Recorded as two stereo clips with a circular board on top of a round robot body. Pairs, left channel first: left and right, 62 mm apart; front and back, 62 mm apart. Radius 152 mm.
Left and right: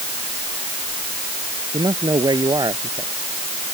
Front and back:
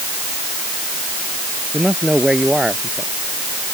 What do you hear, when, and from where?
1.7 s a man speaking: 100° right